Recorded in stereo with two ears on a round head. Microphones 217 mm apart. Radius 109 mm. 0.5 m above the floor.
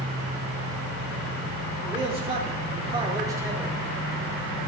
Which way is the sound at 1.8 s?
20° right (ahead or behind).